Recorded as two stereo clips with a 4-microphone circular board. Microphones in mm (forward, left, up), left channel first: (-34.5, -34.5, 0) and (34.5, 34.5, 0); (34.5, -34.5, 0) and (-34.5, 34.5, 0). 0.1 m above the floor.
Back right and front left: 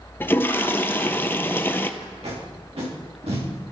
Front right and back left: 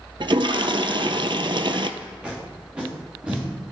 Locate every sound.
0.2 s a toilet flushing: 160° left, 0.5 m
2.0 s tape being pulled: 55° left, 3.5 m